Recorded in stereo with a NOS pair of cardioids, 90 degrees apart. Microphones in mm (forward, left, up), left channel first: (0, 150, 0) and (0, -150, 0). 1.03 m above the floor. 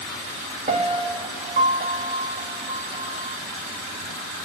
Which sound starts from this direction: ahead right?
A piano, at 0.7 s.